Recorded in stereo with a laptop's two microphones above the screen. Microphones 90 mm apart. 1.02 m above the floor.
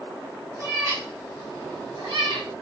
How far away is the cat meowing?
About 2.0 m.